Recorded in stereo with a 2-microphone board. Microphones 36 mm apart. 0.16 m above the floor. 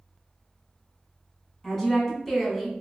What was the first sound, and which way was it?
A woman speaking, 10° left (ahead or behind).